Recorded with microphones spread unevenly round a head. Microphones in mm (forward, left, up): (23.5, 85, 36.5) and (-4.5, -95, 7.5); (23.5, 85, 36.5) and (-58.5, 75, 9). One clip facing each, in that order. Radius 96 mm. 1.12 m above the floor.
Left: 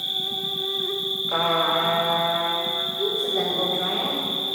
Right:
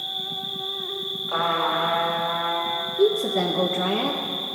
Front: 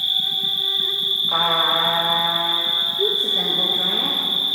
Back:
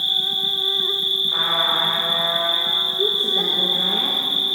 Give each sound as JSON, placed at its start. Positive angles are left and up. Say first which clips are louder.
{"t": 0.0, "sound": "an insect", "louder": "left 2 dB, back 1 dB", "azimuth_deg": 140, "distance_m": 0.8}
{"t": 1.3, "sound": "a trumpet", "louder": "left 2 dB, front 4 dB", "azimuth_deg": 20, "distance_m": 1.8}
{"t": 3.0, "sound": "a woman speaking", "louder": "right 6 dB, even", "azimuth_deg": -90, "distance_m": 1.1}